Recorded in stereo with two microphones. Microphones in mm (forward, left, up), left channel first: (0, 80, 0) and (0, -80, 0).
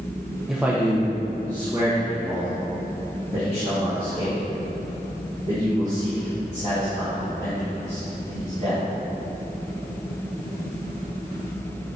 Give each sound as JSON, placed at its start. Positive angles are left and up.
{"t": 0.5, "sound": "a man speaking", "side_deg": -5, "distance_m": 0.8}